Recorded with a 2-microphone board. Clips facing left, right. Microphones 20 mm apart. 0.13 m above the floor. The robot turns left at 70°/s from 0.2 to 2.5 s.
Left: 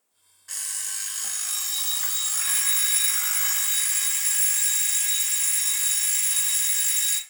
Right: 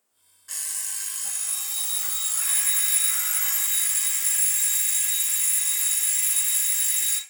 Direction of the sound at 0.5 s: 170° left.